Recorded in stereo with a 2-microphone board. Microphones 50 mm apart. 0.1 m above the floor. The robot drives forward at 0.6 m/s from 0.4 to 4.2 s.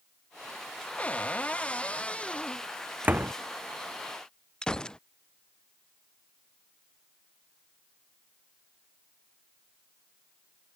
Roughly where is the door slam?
Right.